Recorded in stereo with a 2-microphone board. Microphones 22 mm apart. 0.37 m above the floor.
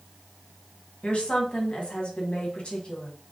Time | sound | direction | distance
1.0 | a woman speaking | 50° left (ahead or behind) | 2.5 m